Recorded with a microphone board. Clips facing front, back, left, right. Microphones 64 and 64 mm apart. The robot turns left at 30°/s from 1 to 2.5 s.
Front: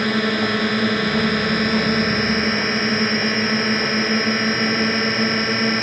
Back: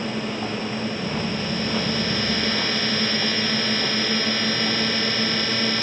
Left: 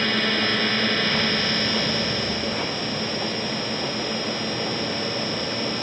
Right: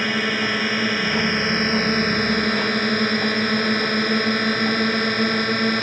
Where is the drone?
15° right; by 5.8 s 60° right.